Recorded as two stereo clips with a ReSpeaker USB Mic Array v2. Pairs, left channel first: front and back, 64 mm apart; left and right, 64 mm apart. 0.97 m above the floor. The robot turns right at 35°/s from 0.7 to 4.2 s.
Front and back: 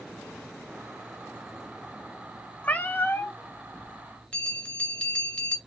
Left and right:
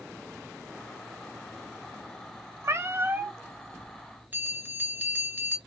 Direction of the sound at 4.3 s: 60° right.